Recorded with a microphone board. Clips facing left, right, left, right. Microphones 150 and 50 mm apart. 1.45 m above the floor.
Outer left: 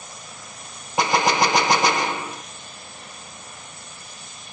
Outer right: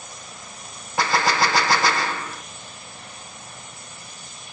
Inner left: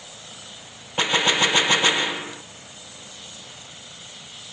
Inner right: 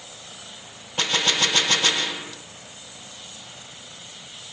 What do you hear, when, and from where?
1.0 s a gunshot: 20° left (ahead or behind)